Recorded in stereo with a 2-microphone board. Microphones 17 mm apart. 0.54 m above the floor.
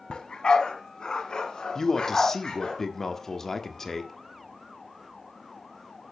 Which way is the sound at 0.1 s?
55° left (ahead or behind).